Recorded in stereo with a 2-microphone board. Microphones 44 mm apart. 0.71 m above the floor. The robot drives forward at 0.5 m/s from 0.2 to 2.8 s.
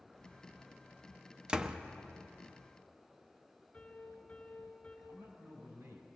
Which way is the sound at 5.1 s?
75° right (ahead or behind).